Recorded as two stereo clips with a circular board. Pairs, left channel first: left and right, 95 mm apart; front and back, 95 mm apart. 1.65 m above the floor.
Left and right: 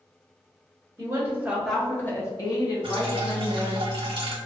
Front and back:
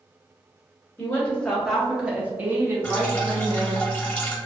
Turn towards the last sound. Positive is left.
turn(degrees=-70)